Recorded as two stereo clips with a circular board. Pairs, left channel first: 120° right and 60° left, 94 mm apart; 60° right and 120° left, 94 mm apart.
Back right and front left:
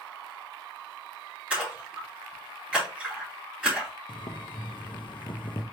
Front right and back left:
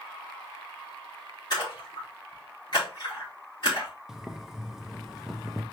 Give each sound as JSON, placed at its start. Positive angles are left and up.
{"t": 1.5, "sound": "a splash", "azimuth_deg": -20, "distance_m": 2.5}
{"t": 4.1, "sound": "boiling", "azimuth_deg": -155, "distance_m": 0.6}